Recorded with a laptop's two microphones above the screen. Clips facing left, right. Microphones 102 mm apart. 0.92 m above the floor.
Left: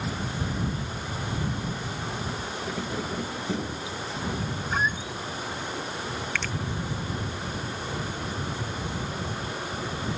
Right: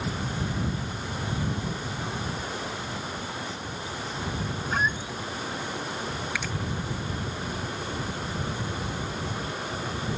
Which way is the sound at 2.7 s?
70° left (ahead or behind).